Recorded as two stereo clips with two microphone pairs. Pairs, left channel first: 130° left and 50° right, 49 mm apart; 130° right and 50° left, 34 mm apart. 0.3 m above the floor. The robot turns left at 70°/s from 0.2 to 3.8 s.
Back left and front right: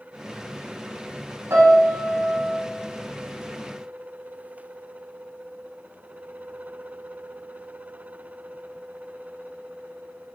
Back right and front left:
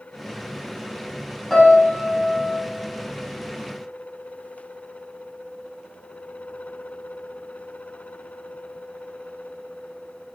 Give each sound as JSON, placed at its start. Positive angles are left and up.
{"t": 1.5, "sound": "a piano", "azimuth_deg": -55, "distance_m": 2.5}